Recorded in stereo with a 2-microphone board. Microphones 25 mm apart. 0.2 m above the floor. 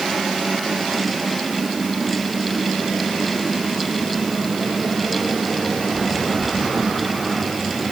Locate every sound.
Only background noise.